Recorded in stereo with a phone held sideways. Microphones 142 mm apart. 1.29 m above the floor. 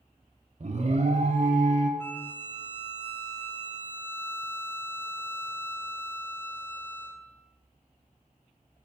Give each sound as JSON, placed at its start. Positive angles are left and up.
{"t": 0.6, "sound": "an alarm", "side_deg": -50, "distance_m": 0.9}
{"t": 2.0, "sound": "a violin", "side_deg": 15, "distance_m": 0.6}